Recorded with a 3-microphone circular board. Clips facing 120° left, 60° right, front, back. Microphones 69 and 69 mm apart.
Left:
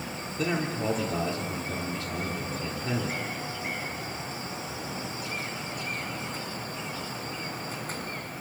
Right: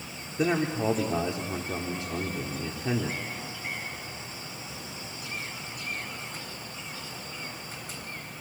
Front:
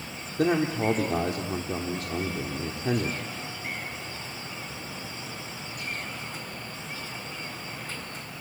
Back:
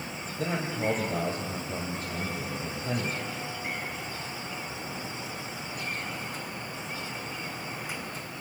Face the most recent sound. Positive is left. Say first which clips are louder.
# right 3 dB, front 7 dB
turn(degrees=10)